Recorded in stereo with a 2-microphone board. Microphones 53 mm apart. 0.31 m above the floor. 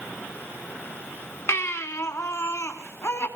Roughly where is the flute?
I don't hear a flute.